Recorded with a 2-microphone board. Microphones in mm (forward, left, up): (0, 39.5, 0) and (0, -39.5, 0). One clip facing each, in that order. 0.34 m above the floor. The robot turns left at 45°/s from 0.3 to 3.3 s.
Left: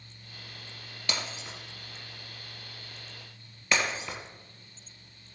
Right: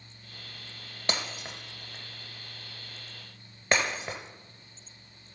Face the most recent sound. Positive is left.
turn(degrees=-45)  # may be behind; listen again after turning